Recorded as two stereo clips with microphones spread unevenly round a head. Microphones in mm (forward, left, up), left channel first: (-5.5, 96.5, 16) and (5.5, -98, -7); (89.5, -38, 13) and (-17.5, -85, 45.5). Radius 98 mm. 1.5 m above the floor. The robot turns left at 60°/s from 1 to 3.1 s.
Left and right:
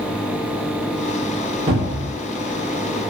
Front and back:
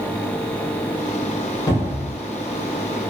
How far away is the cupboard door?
About 0.9 m.